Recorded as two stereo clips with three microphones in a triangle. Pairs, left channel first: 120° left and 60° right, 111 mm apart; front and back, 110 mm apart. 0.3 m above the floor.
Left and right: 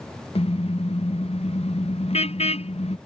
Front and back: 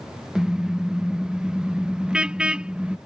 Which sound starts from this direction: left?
A car horn, at 0.3 s.